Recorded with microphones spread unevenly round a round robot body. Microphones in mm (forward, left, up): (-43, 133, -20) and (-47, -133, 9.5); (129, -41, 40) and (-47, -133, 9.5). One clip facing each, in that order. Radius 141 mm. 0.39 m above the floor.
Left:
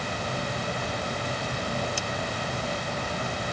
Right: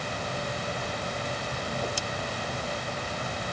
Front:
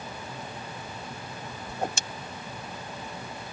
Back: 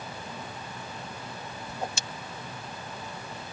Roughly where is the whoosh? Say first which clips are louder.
Even, front 4 dB; ahead.